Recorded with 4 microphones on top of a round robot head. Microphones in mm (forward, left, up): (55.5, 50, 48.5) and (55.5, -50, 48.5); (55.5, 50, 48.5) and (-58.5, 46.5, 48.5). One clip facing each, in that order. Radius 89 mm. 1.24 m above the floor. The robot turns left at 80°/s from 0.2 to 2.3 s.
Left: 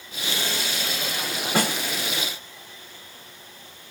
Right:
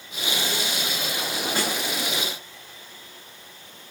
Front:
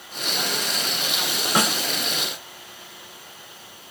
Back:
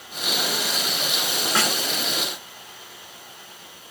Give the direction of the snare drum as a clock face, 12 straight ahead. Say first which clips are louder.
Left 5 dB, front 3 dB; 10 o'clock.